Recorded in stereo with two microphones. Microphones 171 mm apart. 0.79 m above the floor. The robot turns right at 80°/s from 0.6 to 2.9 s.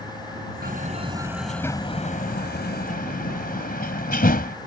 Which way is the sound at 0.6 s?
65° right (ahead or behind).